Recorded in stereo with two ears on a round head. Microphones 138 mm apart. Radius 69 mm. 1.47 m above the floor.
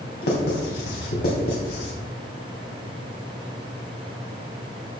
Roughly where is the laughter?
No laughter in this recording.